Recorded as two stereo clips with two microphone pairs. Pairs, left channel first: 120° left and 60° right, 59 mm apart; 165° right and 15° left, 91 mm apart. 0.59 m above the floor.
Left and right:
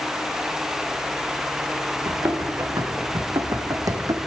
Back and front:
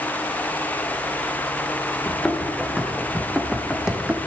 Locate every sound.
2.0 s running footsteps: 75° right, 2 m; by 4.2 s 60° right, 1.1 m